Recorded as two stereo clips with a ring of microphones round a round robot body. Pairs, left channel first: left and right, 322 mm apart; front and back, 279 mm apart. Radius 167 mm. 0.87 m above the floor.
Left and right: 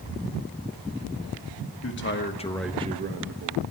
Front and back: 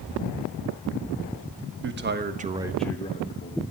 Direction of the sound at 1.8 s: 135° left.